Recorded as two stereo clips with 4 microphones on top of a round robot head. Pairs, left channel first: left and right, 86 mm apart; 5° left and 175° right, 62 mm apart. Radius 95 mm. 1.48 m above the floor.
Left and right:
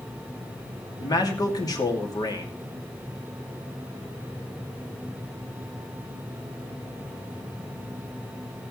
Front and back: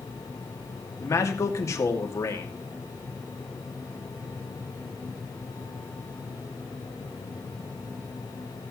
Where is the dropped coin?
I don't hear a dropped coin.